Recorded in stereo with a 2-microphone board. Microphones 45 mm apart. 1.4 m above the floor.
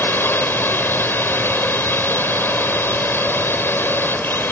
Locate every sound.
0.0 s a drone: 55° left (ahead or behind)